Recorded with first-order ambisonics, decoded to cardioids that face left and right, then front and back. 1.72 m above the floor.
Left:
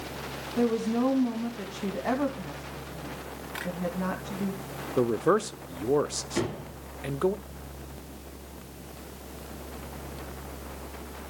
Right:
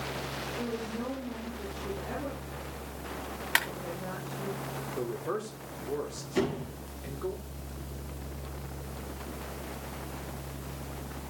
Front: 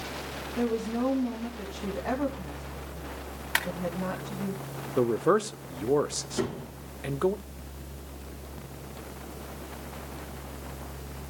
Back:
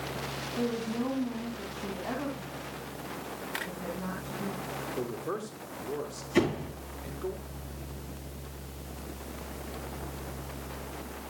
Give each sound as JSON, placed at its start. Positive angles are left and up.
{"t": 0.6, "sound": "a woman speaking", "azimuth_deg": 75, "distance_m": 2.5}
{"t": 3.5, "sound": "a clap", "azimuth_deg": -55, "distance_m": 2.5}
{"t": 5.0, "sound": "a man speaking", "azimuth_deg": 45, "distance_m": 0.6}
{"t": 6.3, "sound": "a door slam", "azimuth_deg": 175, "distance_m": 9.5}